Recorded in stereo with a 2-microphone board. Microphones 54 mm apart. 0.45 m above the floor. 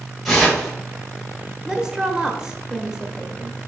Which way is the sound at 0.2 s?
5° left (ahead or behind).